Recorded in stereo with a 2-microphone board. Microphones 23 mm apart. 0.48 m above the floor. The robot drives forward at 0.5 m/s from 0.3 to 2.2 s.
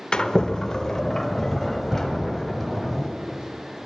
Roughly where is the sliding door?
Left.